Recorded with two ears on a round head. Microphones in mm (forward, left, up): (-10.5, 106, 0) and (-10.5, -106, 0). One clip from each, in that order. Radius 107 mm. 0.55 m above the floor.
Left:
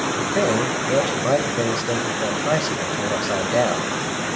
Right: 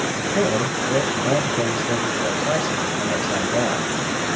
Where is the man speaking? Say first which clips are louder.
Left 1 dB; 40° left (ahead or behind), 2.5 m.